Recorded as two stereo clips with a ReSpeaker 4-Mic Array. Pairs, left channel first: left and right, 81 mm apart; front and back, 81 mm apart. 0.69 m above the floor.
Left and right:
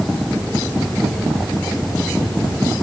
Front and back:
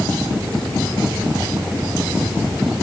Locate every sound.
Only background noise.